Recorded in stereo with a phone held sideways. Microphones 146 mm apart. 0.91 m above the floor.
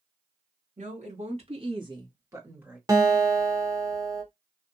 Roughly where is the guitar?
Right.